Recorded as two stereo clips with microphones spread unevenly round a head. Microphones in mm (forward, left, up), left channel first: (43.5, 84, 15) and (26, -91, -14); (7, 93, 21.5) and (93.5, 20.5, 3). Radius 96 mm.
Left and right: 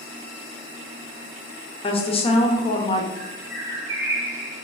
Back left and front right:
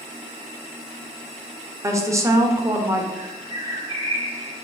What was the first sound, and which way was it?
A woman speaking, 25° left.